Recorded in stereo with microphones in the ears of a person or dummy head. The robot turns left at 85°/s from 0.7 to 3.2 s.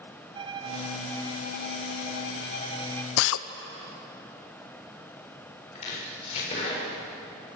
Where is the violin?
155° right, 1.0 m; by 3.1 s 5° left, 1.0 m.